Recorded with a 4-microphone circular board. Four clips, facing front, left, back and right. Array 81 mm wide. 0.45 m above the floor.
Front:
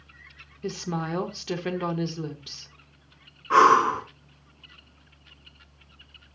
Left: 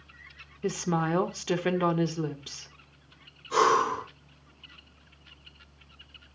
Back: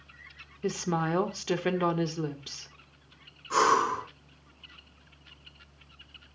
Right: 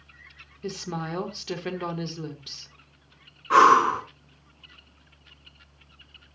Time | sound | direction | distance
0.6 | a woman speaking | 120° left | 1.1 m
3.5 | breathing | 55° right | 2 m